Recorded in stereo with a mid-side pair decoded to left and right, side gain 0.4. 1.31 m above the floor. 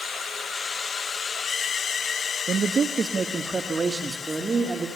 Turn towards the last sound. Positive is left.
turn(degrees=-25)